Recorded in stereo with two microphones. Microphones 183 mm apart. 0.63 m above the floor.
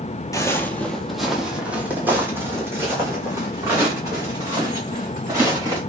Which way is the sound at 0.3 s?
20° left (ahead or behind).